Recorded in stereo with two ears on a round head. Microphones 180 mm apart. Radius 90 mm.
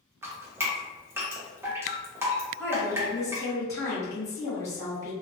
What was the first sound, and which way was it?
Dripping, 10° right (ahead or behind).